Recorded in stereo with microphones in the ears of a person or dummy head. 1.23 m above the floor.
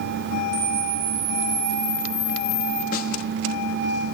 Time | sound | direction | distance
0.5 | a camera shutter | 80° right | 2.5 m
2.9 | a snare drum | 55° left (ahead or behind) | 1.6 m